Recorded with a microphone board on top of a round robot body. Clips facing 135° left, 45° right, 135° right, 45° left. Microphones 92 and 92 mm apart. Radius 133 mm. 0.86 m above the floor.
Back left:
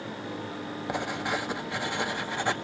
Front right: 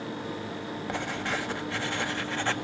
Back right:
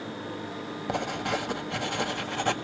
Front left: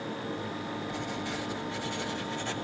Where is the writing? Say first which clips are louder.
Back left 2 dB, back right 5 dB; 150° right, 1.7 m.